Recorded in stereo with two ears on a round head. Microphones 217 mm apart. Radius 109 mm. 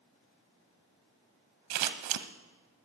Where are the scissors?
85° right, 0.9 m.